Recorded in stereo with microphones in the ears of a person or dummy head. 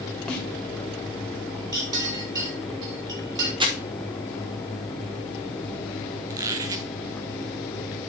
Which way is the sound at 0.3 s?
10° left (ahead or behind).